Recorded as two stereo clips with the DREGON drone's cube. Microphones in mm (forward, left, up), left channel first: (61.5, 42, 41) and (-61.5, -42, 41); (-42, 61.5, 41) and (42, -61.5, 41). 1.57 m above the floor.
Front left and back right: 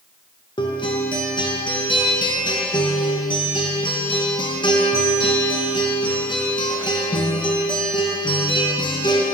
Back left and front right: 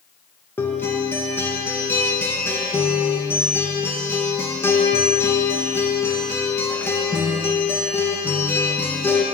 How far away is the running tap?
I don't hear a running tap.